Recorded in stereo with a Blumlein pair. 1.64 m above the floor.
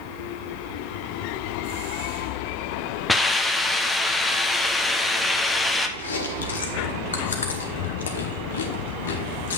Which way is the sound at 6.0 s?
65° left.